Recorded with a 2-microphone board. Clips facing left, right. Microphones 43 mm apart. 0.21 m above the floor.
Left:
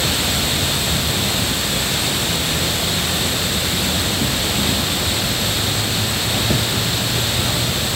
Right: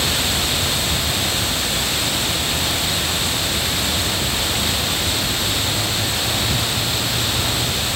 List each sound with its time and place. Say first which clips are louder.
0.0 s an insect: left 1 dB; 70° left (ahead or behind)